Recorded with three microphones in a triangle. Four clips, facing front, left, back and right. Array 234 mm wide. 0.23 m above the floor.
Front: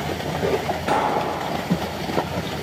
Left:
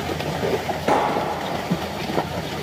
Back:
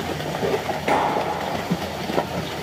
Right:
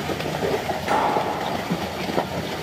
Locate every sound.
0.9 s a clap: 110° left, 3 m